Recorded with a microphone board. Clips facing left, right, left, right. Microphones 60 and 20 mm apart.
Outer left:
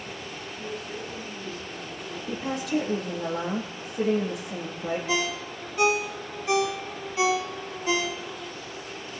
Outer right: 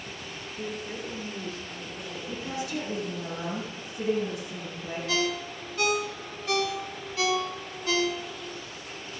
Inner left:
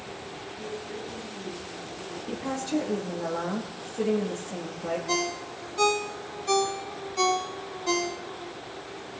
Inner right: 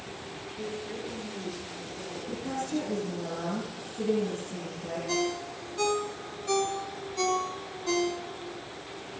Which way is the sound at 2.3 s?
65° left (ahead or behind).